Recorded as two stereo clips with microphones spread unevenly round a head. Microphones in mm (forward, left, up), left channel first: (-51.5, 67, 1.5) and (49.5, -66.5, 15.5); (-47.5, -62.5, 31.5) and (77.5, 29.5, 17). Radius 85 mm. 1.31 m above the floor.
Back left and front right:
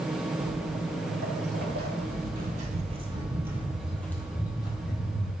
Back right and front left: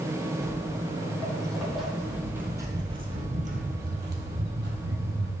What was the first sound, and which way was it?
Footsteps, 70° right.